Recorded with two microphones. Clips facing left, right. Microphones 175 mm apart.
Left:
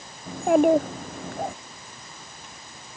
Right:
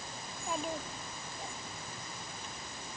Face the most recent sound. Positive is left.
turn(degrees=80)